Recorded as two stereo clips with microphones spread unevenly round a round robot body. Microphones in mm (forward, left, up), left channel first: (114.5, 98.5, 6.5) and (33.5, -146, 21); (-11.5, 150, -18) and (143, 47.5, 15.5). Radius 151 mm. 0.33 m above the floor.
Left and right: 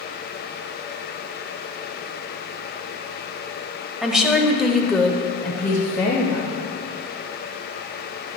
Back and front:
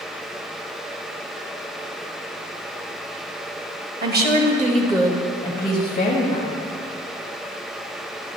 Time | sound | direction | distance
4.0 | a woman speaking | 20° right | 1.6 m